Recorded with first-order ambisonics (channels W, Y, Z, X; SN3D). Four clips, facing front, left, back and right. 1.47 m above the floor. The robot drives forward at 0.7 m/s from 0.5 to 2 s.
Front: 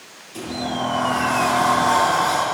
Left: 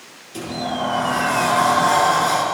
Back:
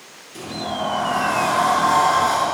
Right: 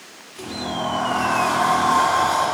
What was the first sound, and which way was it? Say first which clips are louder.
A sliding door: left 3 dB, front 1 dB; 85° left.